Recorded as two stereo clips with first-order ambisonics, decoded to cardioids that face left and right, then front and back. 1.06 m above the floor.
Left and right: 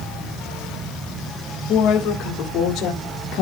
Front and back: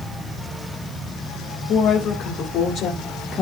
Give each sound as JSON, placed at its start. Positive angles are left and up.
{"t": 1.7, "sound": "a woman speaking", "azimuth_deg": 50, "distance_m": 3.5}